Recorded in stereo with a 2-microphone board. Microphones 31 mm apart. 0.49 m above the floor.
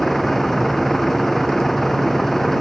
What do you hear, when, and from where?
0.0 s a vehicle: 5° left (ahead or behind)